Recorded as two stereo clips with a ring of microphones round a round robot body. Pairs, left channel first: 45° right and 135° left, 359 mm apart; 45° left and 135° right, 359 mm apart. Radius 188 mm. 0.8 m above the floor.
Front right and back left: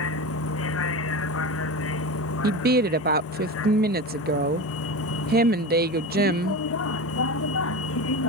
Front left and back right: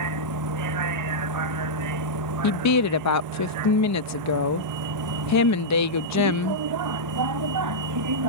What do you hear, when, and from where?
0.0 s a vehicle: 95° right
2.4 s a woman speaking: 75° left